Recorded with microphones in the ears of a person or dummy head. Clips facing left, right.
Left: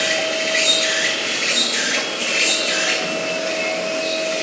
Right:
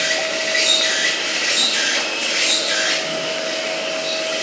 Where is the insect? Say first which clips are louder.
Left 2 dB; 40° left (ahead or behind), 2.5 m.